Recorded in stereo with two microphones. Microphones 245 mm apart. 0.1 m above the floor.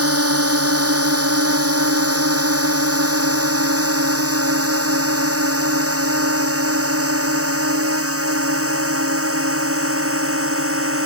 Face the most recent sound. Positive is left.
turn(degrees=-65)  # may be behind; listen again after turning